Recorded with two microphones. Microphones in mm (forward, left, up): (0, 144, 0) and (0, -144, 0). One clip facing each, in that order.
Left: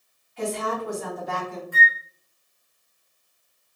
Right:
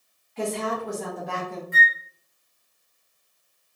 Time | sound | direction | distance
0.4 | a woman speaking | 80° right | 2 m
1.7 | a flute | 25° right (ahead or behind) | 0.9 m